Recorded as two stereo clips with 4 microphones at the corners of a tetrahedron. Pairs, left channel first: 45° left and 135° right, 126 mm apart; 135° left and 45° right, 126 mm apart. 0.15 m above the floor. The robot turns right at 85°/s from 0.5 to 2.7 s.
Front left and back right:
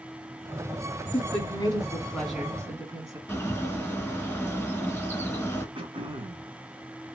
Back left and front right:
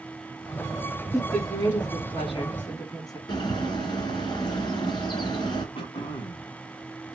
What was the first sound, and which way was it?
A woman speaking, 45° left.